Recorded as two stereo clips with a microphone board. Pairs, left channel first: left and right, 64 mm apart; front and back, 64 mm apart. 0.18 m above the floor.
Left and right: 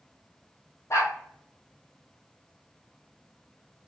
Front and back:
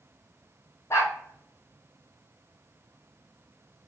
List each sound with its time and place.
0.9 s a dog barking: 50° left, 2.0 m